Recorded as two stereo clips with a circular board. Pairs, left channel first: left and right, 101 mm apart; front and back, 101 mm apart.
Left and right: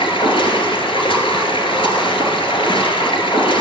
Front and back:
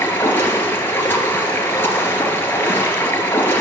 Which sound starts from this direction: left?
Running water, at 0.0 s.